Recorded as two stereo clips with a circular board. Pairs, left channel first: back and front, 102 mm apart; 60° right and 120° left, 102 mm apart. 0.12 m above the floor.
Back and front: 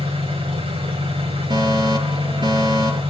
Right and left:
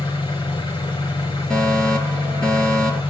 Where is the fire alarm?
20° left, 3 m.